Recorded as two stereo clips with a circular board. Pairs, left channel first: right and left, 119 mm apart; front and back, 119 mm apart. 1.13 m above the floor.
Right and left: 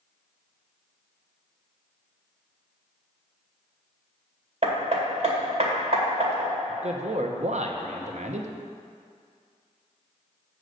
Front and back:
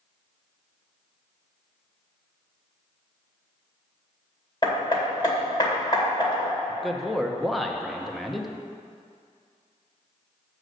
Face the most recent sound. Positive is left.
turn(degrees=90)